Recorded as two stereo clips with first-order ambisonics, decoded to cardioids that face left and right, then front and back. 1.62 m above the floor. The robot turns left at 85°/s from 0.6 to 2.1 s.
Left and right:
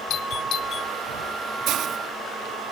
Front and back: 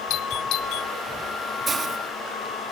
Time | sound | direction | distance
0.1 | a doorbell | 40° left | ?
1.7 | a hiss | 110° right | ?